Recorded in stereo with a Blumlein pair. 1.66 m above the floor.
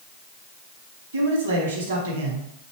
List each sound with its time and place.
1.1 s a man speaking: 70° right, 1.0 m